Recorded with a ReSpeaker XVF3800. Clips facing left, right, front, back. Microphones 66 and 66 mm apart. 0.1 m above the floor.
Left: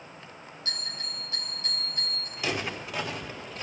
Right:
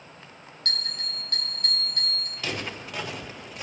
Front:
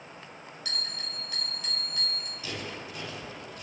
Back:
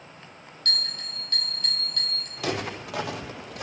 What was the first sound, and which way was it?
A bell, 80° right.